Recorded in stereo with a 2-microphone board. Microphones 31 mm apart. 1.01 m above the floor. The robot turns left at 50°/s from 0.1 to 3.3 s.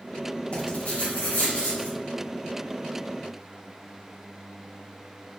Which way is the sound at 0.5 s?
130° left.